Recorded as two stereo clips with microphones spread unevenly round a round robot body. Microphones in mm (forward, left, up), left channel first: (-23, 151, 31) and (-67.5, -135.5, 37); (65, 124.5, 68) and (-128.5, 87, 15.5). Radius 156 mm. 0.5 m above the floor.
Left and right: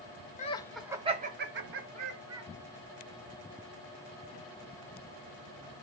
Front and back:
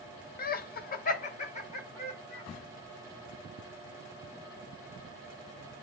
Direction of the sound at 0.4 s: 40° left.